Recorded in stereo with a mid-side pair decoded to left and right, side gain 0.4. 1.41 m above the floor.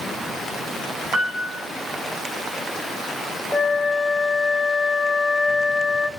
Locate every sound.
1.1 s a piano: 65° right, 1.6 m
3.5 s a flute: 25° left, 1.0 m